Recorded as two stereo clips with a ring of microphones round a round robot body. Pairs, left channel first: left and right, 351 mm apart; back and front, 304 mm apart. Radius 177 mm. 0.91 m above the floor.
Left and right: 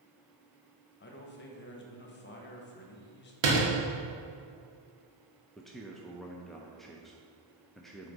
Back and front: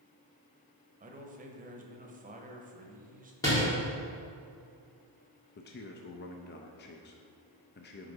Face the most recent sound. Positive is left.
turn(degrees=180)